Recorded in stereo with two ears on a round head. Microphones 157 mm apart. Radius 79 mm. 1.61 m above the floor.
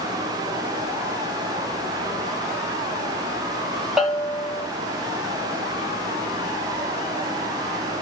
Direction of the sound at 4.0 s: 5° right (ahead or behind).